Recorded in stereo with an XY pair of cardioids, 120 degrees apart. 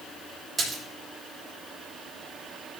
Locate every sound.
0.6 s a splash: 25° right, 6.5 m